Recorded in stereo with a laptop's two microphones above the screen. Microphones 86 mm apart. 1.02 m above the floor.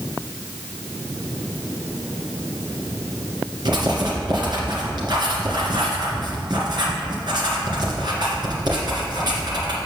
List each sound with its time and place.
3.6 s writing: 60° right (ahead or behind), 2.0 m